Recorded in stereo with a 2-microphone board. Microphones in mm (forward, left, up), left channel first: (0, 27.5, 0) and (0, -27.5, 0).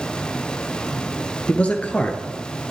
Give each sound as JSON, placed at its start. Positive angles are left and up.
{"t": 1.5, "sound": "a man speaking", "side_deg": 25, "distance_m": 1.8}